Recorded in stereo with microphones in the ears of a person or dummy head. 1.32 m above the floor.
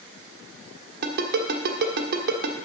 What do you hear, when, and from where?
1.0 s a ringtone: 50° right (ahead or behind), 1.5 m